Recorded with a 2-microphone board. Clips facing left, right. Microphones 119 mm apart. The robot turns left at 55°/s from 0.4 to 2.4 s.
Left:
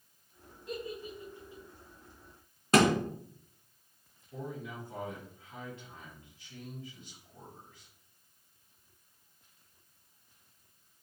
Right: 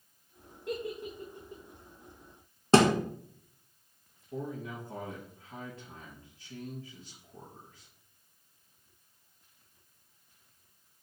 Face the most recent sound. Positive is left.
turn(degrees=-40)  # may be behind; listen again after turning